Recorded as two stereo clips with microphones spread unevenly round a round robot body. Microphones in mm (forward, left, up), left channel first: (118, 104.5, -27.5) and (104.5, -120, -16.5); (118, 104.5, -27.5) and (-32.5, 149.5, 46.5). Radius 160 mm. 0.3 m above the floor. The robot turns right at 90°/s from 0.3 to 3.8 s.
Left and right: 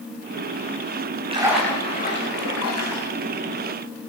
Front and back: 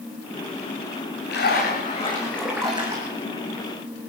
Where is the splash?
30° right, 8.5 m; by 3.1 s 130° left, 8.5 m.